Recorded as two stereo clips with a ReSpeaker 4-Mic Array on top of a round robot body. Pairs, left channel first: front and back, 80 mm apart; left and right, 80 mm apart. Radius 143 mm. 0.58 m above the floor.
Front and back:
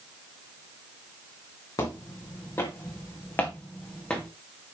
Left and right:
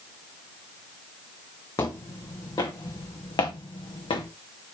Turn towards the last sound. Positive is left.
turn(degrees=80)